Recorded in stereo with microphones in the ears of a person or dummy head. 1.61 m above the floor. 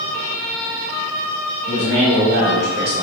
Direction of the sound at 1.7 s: 60° right (ahead or behind).